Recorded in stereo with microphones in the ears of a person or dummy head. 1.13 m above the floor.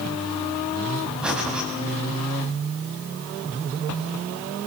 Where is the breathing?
10° right (ahead or behind), 4 m.